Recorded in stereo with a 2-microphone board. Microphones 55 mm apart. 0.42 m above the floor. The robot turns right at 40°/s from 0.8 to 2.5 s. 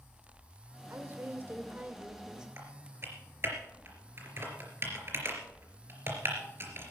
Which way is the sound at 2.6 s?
45° right (ahead or behind).